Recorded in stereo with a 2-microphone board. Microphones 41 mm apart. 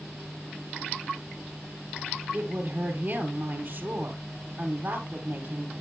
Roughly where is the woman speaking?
Right.